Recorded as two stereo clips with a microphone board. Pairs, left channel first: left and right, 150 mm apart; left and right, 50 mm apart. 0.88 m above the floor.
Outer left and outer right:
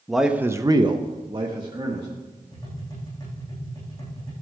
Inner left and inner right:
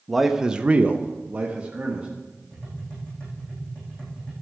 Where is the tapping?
25° left (ahead or behind), 7.5 m.